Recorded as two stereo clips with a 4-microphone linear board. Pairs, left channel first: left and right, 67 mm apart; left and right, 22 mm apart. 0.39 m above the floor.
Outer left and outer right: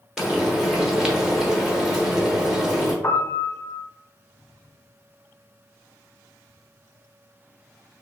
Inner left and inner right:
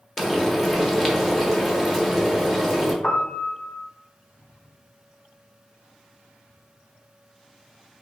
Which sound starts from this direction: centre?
Frying, at 0.2 s.